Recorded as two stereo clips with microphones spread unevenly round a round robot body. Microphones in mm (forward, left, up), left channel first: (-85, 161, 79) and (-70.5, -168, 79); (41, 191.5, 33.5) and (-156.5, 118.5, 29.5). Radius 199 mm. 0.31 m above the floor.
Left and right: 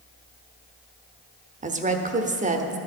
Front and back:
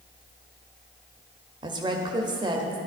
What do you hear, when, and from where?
1.6 s a woman speaking: 125° right, 1.0 m